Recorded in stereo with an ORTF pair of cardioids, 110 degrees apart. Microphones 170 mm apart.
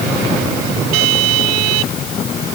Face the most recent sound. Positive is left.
No sound to turn to.